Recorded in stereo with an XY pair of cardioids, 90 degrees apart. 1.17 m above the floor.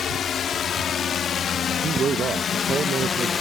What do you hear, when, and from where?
0.0 s a drone: 65° left; by 3.4 s 75° left
1.7 s a man speaking: 55° right